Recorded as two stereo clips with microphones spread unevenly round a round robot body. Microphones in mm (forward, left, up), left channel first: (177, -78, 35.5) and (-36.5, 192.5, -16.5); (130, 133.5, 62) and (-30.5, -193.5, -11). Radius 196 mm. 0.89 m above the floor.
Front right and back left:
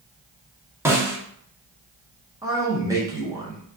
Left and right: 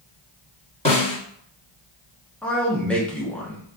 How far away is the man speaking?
About 0.6 m.